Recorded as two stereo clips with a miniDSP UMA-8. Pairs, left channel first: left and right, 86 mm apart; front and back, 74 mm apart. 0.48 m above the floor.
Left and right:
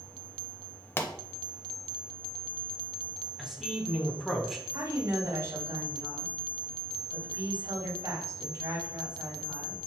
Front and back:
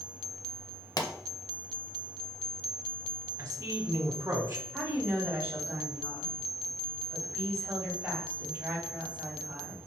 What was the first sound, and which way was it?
A pop, 25° left.